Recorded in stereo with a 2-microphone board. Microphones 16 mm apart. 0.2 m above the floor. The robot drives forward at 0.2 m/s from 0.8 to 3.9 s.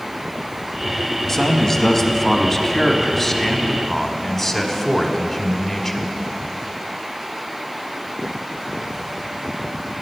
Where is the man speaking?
20° left (ahead or behind), 1.2 m; by 6.1 s 15° left (ahead or behind), 1.4 m.